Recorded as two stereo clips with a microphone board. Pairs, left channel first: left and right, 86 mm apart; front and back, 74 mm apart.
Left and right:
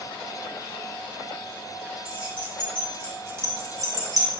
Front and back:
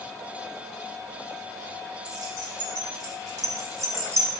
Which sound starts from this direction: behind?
Keys jangling, at 2.0 s.